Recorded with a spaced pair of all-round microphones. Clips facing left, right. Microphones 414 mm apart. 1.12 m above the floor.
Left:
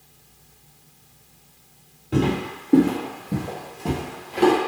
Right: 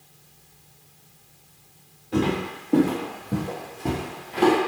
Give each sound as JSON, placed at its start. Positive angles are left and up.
{"t": 2.1, "sound": "footsteps", "side_deg": 45, "distance_m": 1.5}